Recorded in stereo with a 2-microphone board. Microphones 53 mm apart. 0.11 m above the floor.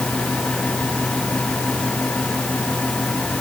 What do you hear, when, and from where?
Only background noise.